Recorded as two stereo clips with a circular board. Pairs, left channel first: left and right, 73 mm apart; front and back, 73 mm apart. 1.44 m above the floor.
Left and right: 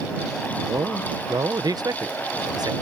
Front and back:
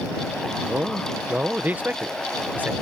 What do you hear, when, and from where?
0.6 s a man speaking: 115° right